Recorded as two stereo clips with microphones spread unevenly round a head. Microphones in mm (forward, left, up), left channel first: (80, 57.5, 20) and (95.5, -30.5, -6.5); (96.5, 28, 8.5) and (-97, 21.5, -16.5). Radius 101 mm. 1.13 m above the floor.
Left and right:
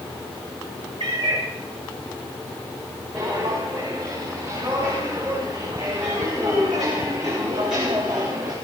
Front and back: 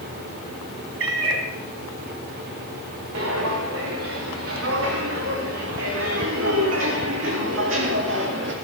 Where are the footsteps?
155° right, 6.5 m; by 8.6 s 150° right, 3 m.